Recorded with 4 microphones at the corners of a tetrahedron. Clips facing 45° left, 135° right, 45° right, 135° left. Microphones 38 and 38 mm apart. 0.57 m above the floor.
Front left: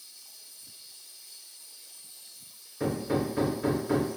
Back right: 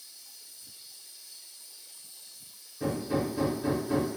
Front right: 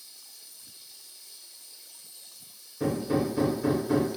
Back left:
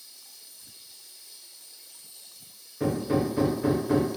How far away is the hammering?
About 0.5 m.